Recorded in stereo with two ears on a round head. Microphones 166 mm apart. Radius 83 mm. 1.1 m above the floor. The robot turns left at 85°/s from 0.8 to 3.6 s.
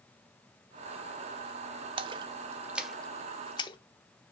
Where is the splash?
30° right (ahead or behind), 0.7 m; by 3.8 s 25° left (ahead or behind), 0.7 m.